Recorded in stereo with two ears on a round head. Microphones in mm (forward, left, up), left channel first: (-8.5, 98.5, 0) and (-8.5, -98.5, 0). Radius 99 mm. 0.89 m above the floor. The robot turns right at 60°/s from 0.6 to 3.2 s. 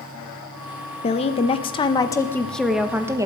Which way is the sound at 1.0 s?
25° left (ahead or behind).